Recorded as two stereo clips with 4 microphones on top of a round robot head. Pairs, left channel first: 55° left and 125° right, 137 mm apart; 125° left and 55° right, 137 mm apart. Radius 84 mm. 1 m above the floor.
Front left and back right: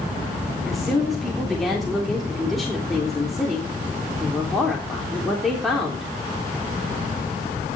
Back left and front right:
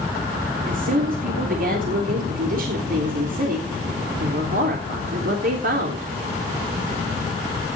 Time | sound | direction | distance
0.7 | a woman speaking | 35° right | 3.5 m